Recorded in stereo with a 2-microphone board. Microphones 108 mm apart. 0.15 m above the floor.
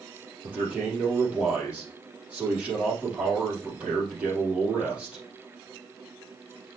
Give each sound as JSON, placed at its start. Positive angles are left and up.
{"t": 0.4, "sound": "a man speaking", "side_deg": -10, "distance_m": 4.5}